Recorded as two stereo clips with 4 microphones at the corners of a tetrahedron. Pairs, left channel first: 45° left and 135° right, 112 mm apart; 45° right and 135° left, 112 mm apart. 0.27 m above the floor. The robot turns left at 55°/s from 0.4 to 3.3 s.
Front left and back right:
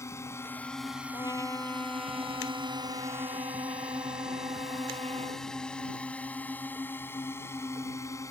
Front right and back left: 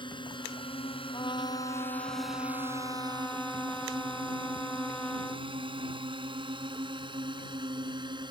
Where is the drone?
15° right; by 8.3 s 100° left.